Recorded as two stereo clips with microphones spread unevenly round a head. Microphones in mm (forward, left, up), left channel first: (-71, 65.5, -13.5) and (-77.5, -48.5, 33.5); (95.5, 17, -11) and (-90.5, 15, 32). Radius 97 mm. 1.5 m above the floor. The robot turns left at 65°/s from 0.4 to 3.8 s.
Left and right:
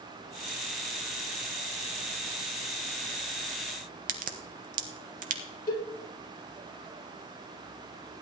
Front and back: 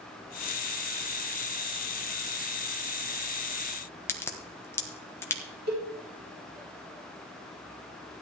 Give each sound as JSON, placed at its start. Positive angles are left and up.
{"t": 4.1, "sound": "a crack", "azimuth_deg": -80, "distance_m": 1.3}
{"t": 5.7, "sound": "a cowbell", "azimuth_deg": 145, "distance_m": 5.5}